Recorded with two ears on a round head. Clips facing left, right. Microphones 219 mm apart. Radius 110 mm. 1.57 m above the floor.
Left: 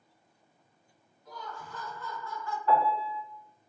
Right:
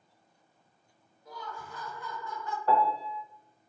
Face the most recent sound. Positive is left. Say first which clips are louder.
# even
turn(degrees=-35)  # may be behind; listen again after turning